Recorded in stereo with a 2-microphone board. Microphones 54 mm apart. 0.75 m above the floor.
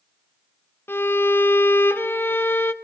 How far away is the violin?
About 0.6 m.